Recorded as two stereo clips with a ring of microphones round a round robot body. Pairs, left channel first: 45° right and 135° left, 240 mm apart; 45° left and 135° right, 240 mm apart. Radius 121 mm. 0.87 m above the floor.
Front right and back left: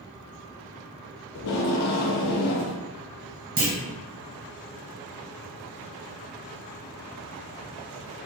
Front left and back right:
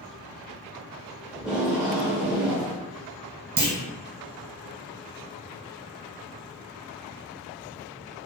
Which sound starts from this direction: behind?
A clunk, at 3.6 s.